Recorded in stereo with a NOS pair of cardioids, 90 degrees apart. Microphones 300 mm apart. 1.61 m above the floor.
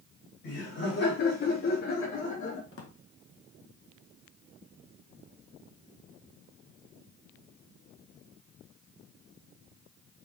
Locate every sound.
0.4 s laughter: 45° left, 3.5 m; by 2.6 s 70° left, 3.5 m
2.7 s a drawer: 50° left, 2 m